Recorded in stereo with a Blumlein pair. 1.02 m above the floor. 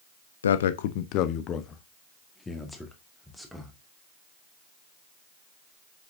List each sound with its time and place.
0.4 s a man speaking: 65° left, 0.9 m; by 3.8 s straight ahead, 2.5 m